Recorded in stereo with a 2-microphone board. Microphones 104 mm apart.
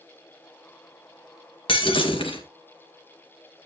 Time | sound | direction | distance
1.7 | breaking glass | 65° left (ahead or behind) | 2 m